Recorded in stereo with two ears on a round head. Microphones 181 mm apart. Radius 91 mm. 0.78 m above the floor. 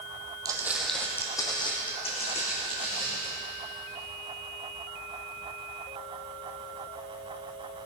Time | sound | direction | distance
0.5 | footsteps | 20° right (ahead or behind) | 1.6 m